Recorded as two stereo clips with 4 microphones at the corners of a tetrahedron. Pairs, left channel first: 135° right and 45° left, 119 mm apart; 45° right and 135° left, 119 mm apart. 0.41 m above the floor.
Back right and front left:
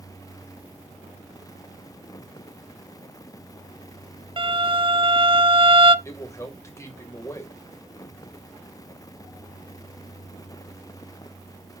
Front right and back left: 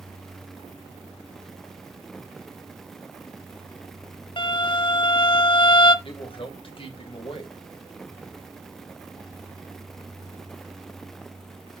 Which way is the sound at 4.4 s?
Straight ahead.